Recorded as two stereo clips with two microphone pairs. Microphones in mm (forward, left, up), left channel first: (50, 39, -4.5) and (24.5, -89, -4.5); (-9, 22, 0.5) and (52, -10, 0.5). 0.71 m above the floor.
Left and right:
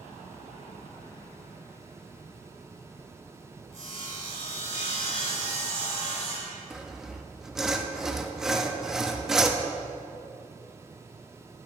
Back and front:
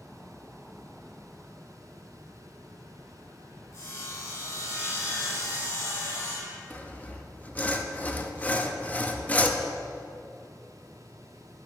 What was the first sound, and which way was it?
Sawing, 110° left.